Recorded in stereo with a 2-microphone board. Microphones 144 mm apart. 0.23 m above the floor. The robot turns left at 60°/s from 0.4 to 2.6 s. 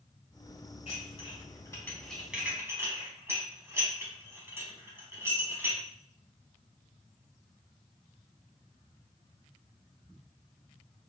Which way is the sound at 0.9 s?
50° left (ahead or behind).